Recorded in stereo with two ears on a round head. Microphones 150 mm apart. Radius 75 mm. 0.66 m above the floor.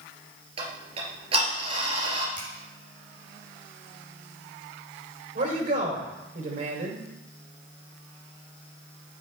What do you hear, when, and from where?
0.6 s ticking: 35° right (ahead or behind), 2.5 m
2.4 s a finger snap: 15° left (ahead or behind), 5.5 m
5.3 s a man speaking: 45° right (ahead or behind), 3 m